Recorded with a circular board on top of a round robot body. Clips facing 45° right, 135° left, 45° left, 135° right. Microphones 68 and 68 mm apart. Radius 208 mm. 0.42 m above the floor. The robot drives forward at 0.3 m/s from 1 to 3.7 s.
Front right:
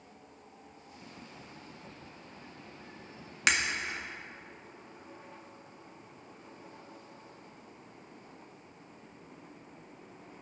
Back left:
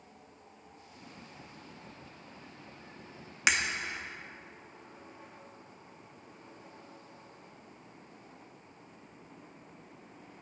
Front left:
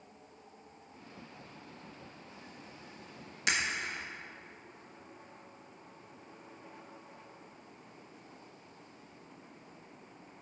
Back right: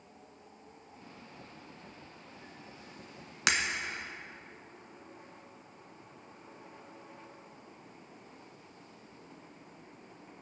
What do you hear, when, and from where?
3.5 s breaking glass: 140° right, 1.5 m